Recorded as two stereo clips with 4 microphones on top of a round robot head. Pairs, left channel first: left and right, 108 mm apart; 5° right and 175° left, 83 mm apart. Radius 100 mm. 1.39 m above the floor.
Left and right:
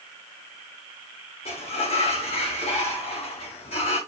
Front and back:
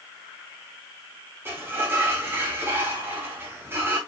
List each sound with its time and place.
1.4 s a sliding door: 110° left, 1.6 m